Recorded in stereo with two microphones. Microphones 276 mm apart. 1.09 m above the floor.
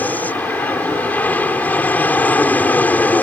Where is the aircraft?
5° left (ahead or behind).